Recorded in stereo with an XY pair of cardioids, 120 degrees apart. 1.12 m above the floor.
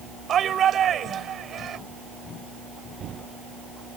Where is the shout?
45° right.